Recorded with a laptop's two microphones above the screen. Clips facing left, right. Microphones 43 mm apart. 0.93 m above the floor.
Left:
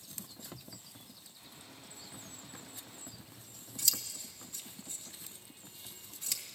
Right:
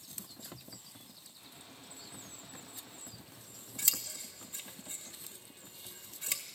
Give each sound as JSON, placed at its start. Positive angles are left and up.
{"t": 1.4, "sound": "a gunshot", "side_deg": 80, "distance_m": 8.5}
{"t": 3.1, "sound": "scissors", "side_deg": -30, "distance_m": 1.4}